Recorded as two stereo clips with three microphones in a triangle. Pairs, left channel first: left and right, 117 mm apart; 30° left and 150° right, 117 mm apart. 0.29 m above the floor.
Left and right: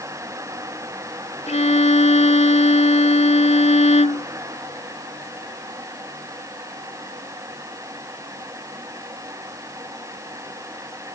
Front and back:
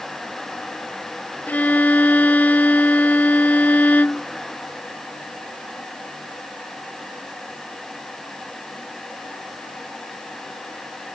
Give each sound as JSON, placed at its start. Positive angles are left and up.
{"t": 1.5, "sound": "a violin", "azimuth_deg": 105}